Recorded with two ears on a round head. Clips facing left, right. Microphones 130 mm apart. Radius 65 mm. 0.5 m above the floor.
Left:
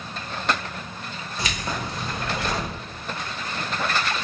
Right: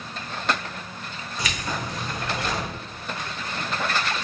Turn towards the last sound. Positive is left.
turn(degrees=25)  # may be behind; listen again after turning